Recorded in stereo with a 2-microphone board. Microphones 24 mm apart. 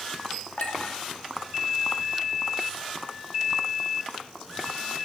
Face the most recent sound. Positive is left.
turn(degrees=75)  # may be behind; listen again after turning